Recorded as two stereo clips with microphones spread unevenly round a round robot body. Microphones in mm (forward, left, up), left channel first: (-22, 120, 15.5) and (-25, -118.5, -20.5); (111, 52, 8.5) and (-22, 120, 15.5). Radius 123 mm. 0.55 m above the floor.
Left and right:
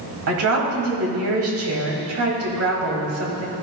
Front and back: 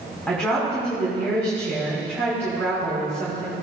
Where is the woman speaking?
110° right, 3 m.